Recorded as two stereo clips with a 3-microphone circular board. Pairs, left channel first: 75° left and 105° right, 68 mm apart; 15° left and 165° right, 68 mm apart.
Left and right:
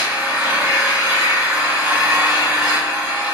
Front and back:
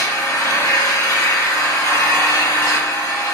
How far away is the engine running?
About 1.8 m.